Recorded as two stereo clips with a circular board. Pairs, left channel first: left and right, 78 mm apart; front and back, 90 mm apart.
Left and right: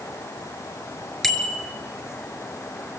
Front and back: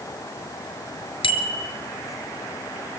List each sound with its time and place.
1.2 s a bicycle bell: 5° left, 3 m